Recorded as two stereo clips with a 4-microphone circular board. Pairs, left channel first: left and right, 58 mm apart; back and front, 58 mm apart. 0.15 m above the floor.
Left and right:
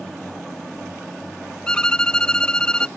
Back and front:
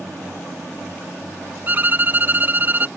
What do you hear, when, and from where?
1.7 s a violin: 25° left